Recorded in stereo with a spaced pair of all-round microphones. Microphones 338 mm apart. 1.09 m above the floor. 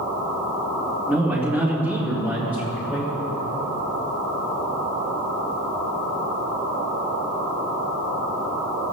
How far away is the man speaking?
About 2.5 m.